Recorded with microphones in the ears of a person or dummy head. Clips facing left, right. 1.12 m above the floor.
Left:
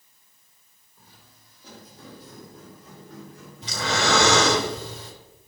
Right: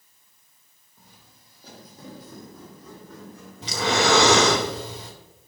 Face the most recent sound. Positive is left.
turn(degrees=-70)  # may be behind; listen again after turning